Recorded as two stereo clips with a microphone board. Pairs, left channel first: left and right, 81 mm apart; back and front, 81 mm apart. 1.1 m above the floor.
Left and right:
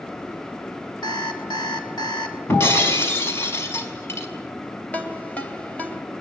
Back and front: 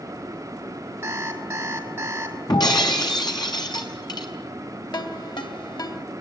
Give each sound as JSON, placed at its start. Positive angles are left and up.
{"t": 1.0, "sound": "an alarm clock", "azimuth_deg": 60, "distance_m": 3.5}
{"t": 2.5, "sound": "breaking glass", "azimuth_deg": 150, "distance_m": 5.0}
{"t": 4.9, "sound": "a ringtone", "azimuth_deg": 160, "distance_m": 3.0}